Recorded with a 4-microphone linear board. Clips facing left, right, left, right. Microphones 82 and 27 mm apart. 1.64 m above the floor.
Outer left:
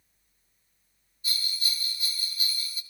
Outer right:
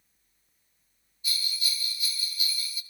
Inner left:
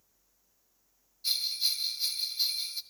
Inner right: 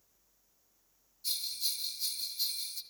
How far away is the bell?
About 1.3 m.